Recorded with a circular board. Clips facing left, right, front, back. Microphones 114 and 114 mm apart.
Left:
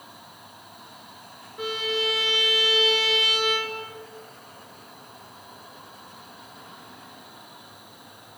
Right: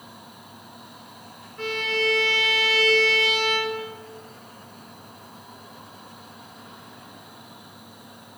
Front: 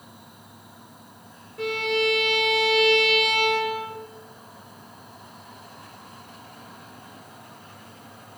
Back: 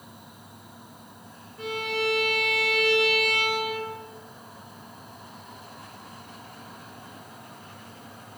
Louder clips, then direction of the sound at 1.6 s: Right 1 dB, front 5 dB; 10° left.